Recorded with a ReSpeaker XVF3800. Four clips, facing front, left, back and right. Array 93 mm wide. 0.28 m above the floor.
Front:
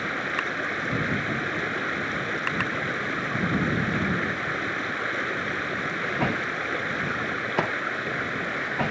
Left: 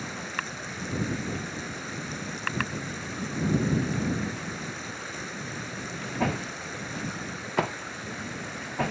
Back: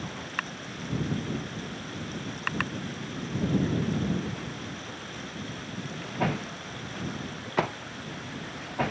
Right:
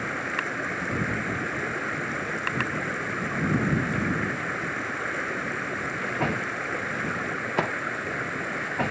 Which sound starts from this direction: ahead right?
Running water, at 0.0 s.